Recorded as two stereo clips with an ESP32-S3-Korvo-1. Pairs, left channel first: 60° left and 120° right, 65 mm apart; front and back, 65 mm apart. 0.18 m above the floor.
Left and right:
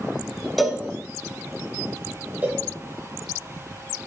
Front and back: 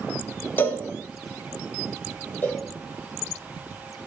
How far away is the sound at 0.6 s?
About 0.7 m.